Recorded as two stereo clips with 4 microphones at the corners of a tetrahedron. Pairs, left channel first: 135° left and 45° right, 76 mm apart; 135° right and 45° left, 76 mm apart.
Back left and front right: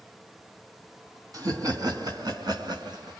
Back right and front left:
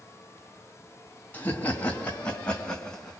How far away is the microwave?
No microwave in this recording.